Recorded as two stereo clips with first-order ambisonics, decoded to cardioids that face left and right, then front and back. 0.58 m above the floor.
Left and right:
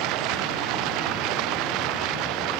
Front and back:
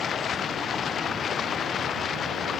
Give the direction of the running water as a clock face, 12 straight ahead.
2 o'clock.